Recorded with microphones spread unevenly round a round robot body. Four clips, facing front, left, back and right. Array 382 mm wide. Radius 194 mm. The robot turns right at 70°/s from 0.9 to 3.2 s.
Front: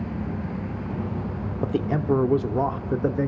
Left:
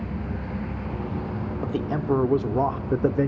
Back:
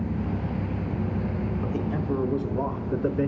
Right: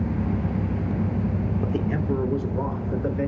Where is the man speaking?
10° right, 1.6 m; by 3.3 s 100° left, 1.6 m.